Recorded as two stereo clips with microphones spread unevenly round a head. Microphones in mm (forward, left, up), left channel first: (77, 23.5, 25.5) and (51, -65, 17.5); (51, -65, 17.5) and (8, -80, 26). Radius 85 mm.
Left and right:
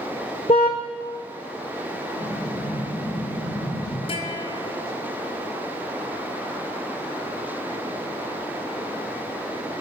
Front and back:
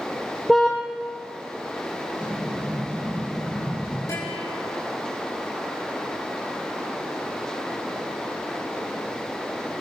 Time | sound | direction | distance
0.5 | a car horn | 110° left | 3 m
2.2 | an explosion | 120° left | 4 m
4.1 | a guitar | 65° left | 6 m